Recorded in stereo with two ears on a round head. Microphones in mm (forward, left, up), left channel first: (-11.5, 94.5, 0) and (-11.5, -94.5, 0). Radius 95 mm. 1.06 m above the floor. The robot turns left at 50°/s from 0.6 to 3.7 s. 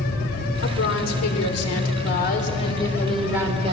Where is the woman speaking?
130° left, 3.5 m; by 3.7 s 25° right, 3.5 m.